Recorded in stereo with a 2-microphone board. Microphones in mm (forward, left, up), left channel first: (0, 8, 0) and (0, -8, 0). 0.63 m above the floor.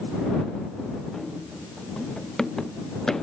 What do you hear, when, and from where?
1.1 s running footsteps: 25° left (ahead or behind); by 3.2 s 35° left (ahead or behind)